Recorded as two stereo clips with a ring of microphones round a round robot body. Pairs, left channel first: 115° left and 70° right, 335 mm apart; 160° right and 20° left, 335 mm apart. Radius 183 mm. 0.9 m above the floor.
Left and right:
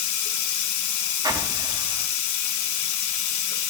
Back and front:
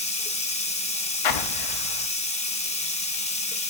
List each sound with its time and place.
0.0 s running water: 135° left, 1.0 m
1.2 s an explosion: 145° right, 0.7 m